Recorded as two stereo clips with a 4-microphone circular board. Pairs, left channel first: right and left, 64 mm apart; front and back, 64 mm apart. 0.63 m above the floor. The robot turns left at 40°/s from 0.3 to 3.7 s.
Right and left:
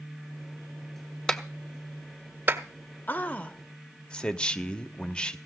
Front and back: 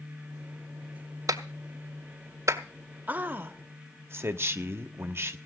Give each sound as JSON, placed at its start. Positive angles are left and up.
{"t": 1.3, "sound": "a clap", "azimuth_deg": -170, "distance_m": 1.4}
{"t": 3.1, "sound": "a man speaking", "azimuth_deg": -130, "distance_m": 1.1}